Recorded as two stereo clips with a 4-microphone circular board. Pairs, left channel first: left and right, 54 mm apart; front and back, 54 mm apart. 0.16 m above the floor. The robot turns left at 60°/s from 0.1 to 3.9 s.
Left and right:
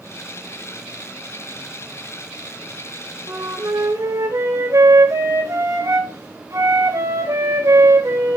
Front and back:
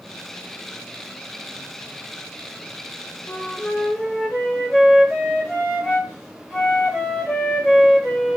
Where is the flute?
45° right, 4 m; by 8.4 s 85° right, 4 m.